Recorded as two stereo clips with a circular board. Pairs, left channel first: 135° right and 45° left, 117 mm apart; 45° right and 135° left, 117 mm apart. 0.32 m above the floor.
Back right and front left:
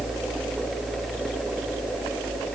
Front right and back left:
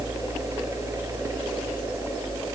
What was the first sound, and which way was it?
Only background noise.